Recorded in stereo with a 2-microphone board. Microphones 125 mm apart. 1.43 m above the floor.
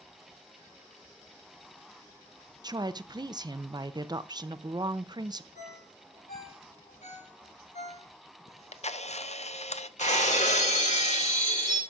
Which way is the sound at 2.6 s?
35° right (ahead or behind).